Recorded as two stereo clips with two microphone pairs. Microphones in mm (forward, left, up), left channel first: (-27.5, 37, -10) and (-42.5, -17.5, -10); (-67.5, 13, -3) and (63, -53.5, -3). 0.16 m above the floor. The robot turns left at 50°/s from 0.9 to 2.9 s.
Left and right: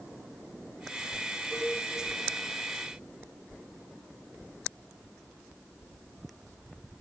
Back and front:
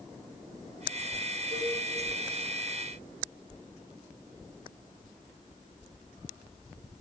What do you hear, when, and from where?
1.5 s a cowbell: 15° right, 4.5 m; by 1.8 s 30° right, 4.5 m